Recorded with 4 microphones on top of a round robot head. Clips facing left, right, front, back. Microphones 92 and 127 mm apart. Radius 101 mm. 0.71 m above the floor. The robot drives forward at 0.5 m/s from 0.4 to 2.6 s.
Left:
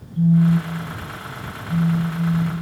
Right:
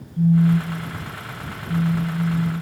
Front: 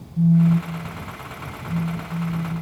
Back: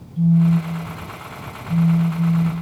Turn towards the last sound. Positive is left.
turn(degrees=165)